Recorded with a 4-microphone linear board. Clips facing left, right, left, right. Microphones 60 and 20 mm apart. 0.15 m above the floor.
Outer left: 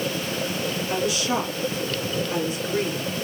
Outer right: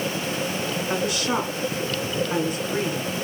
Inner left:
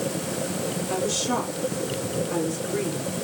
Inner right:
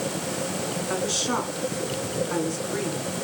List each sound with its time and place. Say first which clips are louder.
0.9 s a woman speaking: even, even; 45° right (ahead or behind), 1.9 m